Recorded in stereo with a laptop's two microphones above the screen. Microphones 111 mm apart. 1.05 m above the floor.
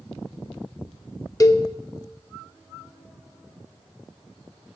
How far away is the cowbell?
About 0.6 m.